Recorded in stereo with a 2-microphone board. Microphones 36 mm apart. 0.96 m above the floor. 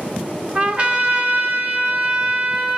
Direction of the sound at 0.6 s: 35° right (ahead or behind).